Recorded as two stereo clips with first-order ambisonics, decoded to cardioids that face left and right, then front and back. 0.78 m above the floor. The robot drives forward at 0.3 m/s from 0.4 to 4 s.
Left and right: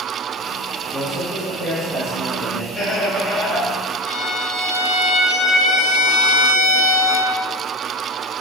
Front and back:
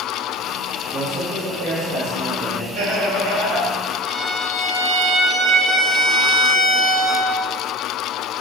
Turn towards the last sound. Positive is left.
turn(degrees=100)